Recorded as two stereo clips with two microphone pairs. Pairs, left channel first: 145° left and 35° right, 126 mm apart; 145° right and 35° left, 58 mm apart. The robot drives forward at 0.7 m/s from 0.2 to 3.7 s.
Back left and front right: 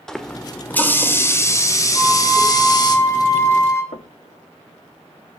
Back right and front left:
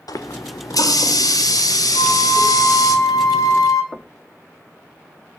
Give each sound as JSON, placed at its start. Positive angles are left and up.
{"t": 0.1, "sound": "a running tap", "azimuth_deg": -130, "distance_m": 1.7}
{"t": 1.9, "sound": "a flute", "azimuth_deg": -130, "distance_m": 2.5}
{"t": 3.9, "sound": "knocking", "azimuth_deg": 155, "distance_m": 1.1}